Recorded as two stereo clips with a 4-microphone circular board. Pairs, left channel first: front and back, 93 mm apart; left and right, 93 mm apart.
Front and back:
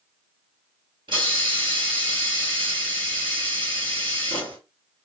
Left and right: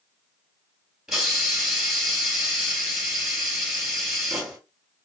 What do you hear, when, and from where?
1.1 s a hiss: 170° right, 1.6 m